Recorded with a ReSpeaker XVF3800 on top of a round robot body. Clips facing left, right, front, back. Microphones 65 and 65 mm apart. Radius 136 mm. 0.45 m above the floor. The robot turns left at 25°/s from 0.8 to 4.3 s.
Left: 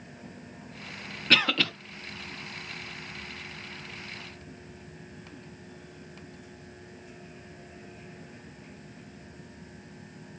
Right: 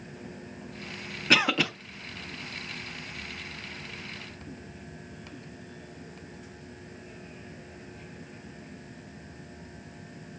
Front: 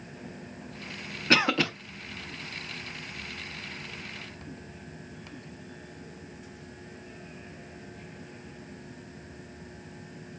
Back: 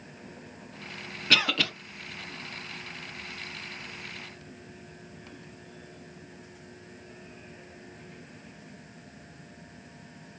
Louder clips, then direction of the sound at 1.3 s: Right 1 dB, front 3 dB; 25° right.